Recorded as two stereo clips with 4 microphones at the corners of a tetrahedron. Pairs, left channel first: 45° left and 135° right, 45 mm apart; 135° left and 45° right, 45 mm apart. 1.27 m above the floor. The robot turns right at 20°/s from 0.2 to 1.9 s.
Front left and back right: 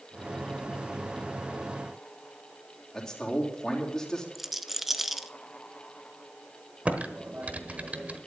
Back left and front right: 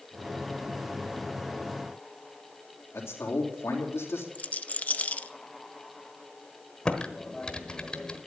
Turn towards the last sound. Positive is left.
turn(degrees=-165)